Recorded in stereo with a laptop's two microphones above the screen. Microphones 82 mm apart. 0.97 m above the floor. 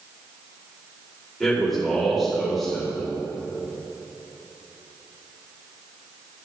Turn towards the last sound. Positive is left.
turn(degrees=0)  # may be behind; listen again after turning